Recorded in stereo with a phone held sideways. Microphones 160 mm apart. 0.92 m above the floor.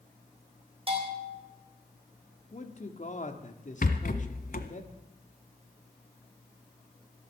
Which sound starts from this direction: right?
A bell, at 0.9 s.